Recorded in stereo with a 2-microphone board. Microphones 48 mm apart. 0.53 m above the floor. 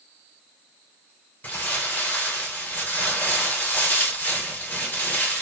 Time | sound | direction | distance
1.4 | crumpling | 40° left (ahead or behind) | 3 m